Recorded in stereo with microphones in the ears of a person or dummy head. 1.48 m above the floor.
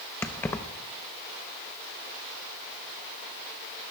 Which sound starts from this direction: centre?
Keys jangling, at 0.2 s.